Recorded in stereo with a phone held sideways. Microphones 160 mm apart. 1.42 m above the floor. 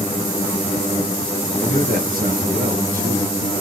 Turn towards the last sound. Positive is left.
turn(degrees=-60)  # may be behind; listen again after turning